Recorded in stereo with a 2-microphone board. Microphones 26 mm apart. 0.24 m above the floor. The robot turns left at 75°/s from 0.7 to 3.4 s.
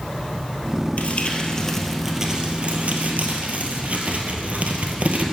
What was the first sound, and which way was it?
Crumpling, 75° left.